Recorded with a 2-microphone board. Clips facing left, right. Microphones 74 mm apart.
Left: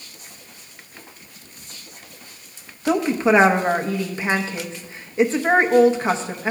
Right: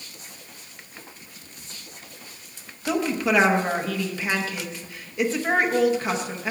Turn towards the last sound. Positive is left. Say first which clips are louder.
# left 5 dB
turn(degrees=30)  # may be behind; listen again after turning